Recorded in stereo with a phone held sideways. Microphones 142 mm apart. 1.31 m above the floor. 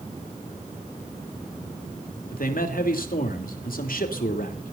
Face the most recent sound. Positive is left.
turn(degrees=80)